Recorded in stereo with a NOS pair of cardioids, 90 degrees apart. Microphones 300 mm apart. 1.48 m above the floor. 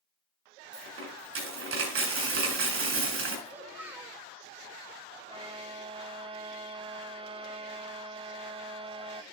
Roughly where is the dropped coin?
Ahead right.